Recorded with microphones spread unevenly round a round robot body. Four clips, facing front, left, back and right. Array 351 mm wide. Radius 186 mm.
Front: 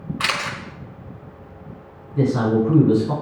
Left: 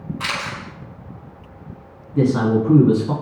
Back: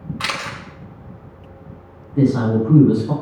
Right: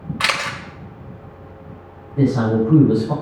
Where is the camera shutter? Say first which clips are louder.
Right 6 dB, front 2 dB; 75° right, 1.8 m.